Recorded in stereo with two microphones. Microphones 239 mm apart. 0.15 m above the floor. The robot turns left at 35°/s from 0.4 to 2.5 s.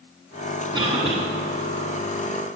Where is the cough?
20° right (ahead or behind), 1.4 m; by 1.2 s 25° right (ahead or behind), 1.4 m.